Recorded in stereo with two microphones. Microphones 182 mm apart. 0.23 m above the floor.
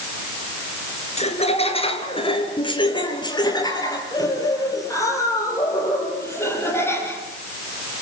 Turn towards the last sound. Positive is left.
turn(degrees=15)  # may be behind; listen again after turning